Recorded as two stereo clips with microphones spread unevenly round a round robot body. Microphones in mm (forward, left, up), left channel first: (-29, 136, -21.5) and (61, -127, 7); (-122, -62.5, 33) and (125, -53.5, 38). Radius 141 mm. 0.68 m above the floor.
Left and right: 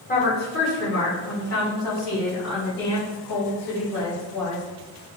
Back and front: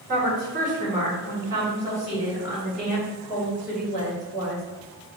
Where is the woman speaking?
55° left, 1.9 m; by 4.6 s 95° left, 3.5 m.